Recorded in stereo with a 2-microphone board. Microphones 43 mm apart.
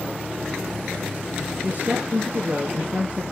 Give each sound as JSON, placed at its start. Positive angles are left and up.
{"t": 1.6, "sound": "a woman speaking", "side_deg": -40, "distance_m": 2.5}